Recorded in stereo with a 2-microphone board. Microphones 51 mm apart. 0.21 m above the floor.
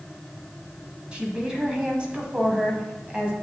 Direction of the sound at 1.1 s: 20° right (ahead or behind).